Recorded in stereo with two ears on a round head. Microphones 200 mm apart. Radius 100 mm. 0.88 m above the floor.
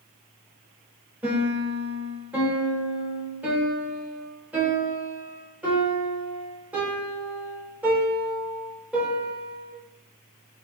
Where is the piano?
5° right (ahead or behind), 1.2 m.